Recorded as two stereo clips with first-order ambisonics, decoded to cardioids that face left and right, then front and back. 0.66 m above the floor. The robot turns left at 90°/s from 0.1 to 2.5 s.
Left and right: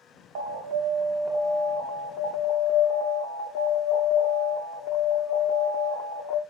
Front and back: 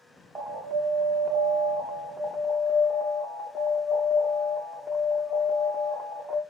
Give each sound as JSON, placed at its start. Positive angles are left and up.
{"t": 0.3, "sound": "an alarm", "azimuth_deg": -90, "distance_m": 0.8}